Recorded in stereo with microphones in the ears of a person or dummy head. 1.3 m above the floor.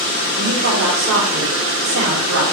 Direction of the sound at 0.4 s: 65° right (ahead or behind).